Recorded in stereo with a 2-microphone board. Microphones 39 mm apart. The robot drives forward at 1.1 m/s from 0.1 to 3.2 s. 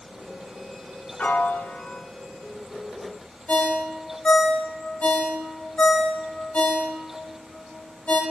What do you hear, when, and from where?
1.2 s a piano: 40° left (ahead or behind), 0.6 m; by 2.0 s 20° left (ahead or behind), 1.0 m
3.5 s a ringtone: 30° left (ahead or behind), 1.1 m